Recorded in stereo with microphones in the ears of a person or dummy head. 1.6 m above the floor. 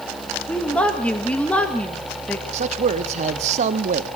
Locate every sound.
0.5 s a woman speaking: 5° left (ahead or behind), 1.7 m
2.5 s a man speaking: 40° right (ahead or behind), 1.4 m